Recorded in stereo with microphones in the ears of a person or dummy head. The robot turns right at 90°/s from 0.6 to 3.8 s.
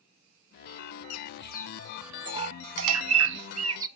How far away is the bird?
About 0.6 m.